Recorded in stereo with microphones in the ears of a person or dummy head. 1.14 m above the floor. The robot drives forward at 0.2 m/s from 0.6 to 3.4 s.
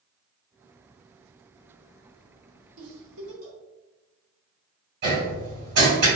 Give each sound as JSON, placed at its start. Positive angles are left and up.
{"t": 2.8, "sound": "a giggle", "side_deg": -75, "distance_m": 1.0}
{"t": 5.0, "sound": "hammering", "side_deg": -55, "distance_m": 1.2}